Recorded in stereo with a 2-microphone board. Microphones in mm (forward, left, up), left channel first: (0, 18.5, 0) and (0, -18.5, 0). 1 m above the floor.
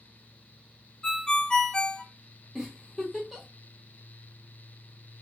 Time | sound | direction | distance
1.0 | a ringtone | 20° left (ahead or behind) | 0.5 m
2.5 | a giggle | centre (ahead or behind) | 1.4 m